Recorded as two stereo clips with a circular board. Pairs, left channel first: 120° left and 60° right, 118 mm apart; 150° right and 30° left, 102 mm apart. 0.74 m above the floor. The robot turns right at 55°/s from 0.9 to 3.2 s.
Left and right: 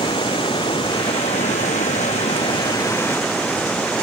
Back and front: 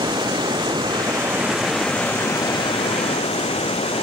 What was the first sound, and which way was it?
Running water, 75° left.